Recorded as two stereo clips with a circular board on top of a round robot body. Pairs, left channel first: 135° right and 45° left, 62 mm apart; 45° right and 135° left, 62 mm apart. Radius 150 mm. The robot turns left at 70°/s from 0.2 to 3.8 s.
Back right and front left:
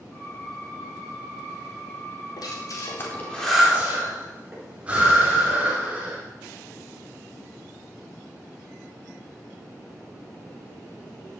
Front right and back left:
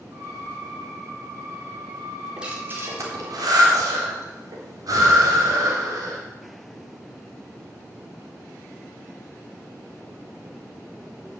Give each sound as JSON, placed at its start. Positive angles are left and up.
{"t": 2.4, "sound": "breathing", "azimuth_deg": -145, "distance_m": 4.0}